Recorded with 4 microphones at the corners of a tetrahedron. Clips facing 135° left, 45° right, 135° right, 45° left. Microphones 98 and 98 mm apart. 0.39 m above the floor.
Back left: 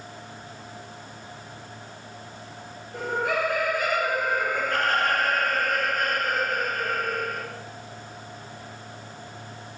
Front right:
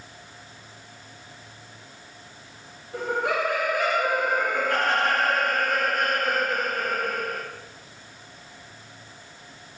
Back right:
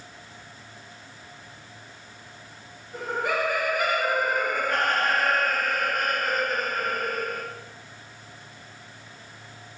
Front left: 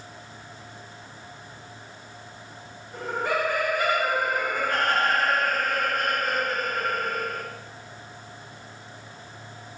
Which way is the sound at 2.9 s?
55° right.